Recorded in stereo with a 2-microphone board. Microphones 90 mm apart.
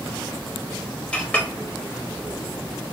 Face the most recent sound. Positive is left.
turn(degrees=10)  # may be behind; listen again after turning